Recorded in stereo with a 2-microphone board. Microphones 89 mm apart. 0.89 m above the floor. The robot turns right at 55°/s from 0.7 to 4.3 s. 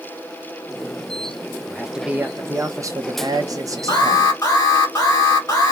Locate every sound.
1.7 s a man speaking: 175° left, 0.7 m; by 4.2 s 40° right, 0.7 m
3.9 s an alarm: 50° left (ahead or behind), 1.9 m; by 5.7 s 40° left (ahead or behind), 1.9 m